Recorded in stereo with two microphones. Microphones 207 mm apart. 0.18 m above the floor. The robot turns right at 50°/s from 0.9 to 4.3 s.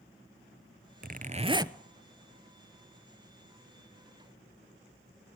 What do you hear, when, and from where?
1.0 s a zipper: 50° right, 0.8 m; by 1.8 s 15° right, 0.8 m